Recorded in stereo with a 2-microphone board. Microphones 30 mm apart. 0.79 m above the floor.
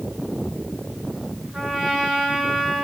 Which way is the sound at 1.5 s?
25° right (ahead or behind).